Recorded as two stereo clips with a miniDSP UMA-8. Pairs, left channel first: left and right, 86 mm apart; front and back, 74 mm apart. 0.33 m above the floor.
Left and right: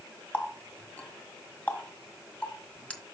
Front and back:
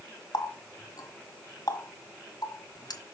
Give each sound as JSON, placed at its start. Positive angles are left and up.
{"t": 0.3, "sound": "a running tap", "azimuth_deg": 15, "distance_m": 1.7}